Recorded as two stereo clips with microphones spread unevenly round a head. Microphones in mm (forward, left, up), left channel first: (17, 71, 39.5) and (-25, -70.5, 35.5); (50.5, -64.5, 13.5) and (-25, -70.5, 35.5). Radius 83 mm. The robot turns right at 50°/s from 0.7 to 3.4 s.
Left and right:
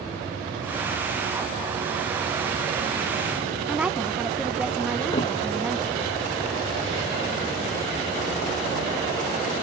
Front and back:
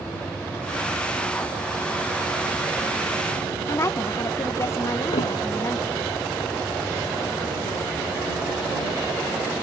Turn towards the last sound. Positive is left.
turn(degrees=15)